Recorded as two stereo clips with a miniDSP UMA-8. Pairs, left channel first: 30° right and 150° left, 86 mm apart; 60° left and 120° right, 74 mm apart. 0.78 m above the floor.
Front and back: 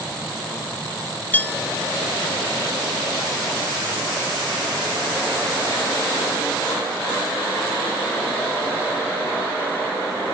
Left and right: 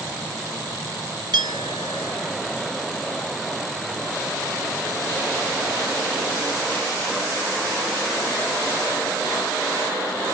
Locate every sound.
1.3 s a clink: 100° right, 1.4 m